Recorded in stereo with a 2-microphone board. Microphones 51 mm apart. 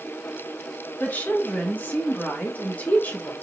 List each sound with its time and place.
1.0 s a woman speaking: 35° left (ahead or behind), 2 m